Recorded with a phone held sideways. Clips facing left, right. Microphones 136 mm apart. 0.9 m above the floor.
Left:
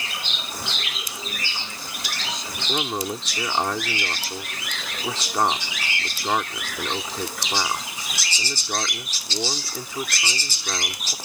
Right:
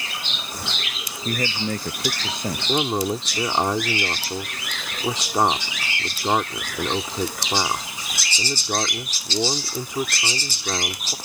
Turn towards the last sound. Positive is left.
turn(degrees=-20)  # may be behind; listen again after turning